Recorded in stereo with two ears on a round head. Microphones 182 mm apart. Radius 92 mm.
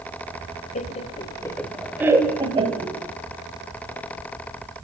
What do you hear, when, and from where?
0.8 s laughter: 40° left (ahead or behind), 1.9 m; by 3.0 s 35° right (ahead or behind), 2.5 m